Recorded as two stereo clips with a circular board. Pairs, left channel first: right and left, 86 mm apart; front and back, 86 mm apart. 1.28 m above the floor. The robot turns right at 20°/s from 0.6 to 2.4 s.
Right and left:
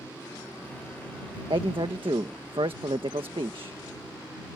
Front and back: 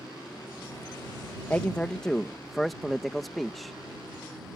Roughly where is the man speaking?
Left.